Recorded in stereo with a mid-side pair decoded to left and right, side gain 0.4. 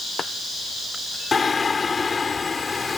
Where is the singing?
35° left.